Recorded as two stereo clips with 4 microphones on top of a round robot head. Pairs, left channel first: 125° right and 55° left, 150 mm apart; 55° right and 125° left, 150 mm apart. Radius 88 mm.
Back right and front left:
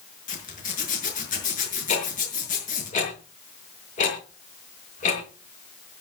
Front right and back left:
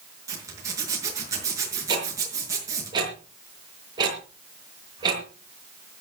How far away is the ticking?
About 6 m.